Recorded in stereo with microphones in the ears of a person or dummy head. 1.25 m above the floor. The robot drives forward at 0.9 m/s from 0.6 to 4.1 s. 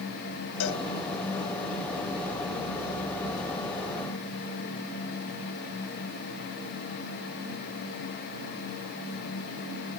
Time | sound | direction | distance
0.6 | a cowbell | 70° left (ahead or behind) | ?